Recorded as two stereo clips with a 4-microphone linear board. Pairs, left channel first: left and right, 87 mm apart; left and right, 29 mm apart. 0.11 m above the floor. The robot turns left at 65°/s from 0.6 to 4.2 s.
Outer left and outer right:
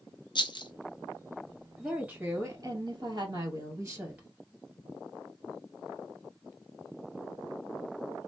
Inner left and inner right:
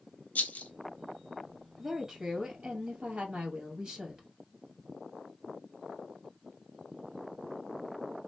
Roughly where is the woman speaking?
Ahead.